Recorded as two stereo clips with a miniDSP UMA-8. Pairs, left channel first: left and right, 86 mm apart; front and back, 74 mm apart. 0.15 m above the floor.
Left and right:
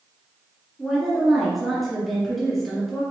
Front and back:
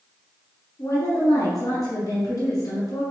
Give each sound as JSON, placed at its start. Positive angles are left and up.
{"t": 0.8, "sound": "a woman speaking", "azimuth_deg": 0, "distance_m": 1.8}